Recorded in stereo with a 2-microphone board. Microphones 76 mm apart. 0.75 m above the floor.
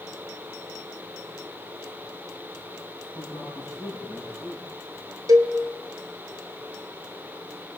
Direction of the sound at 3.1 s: 35° right (ahead or behind).